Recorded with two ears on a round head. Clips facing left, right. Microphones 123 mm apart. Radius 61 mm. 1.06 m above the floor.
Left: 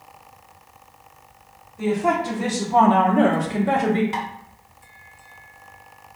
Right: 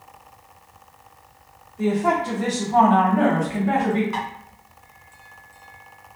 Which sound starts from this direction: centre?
A woman speaking, at 1.8 s.